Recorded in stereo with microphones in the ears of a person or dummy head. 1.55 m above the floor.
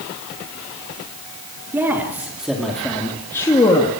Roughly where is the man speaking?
Centre.